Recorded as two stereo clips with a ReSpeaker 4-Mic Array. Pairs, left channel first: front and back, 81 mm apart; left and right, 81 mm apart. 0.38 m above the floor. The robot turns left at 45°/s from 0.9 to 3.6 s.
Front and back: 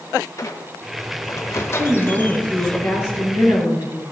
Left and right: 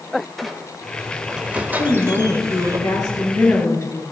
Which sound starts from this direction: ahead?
A squeak, at 0.4 s.